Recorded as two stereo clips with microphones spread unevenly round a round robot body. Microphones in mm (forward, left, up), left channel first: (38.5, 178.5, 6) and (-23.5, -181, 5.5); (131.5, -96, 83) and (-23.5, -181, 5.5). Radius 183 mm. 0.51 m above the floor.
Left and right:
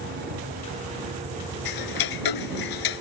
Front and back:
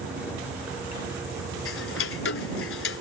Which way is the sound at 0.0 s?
130° right.